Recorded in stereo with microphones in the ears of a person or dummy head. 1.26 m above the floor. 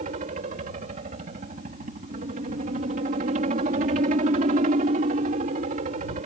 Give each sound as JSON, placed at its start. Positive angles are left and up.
{"t": 0.0, "sound": "a helicopter", "side_deg": -40}